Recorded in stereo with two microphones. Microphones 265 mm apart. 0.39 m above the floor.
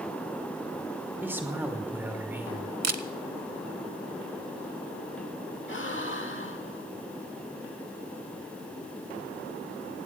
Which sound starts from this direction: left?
A gasp, at 5.7 s.